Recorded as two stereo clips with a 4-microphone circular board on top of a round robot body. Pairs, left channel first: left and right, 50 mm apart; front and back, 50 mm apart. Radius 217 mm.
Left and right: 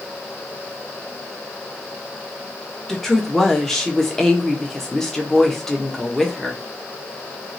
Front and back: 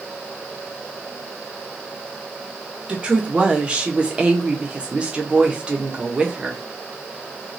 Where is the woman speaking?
160° left, 1.1 m.